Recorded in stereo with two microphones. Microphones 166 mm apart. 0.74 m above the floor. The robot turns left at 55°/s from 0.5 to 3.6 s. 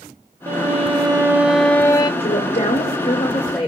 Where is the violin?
120° right, 0.7 m; by 2.1 s 150° left, 0.7 m.